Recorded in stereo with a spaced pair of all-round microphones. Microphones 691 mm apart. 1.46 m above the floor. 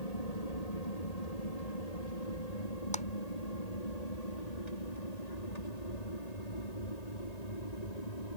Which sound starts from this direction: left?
An aircraft, at 0.0 s.